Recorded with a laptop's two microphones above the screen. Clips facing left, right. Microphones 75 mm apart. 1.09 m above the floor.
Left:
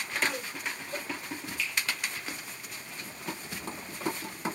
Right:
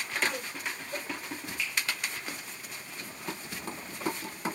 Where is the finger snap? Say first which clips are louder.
Even; 15° right (ahead or behind), 1.4 m.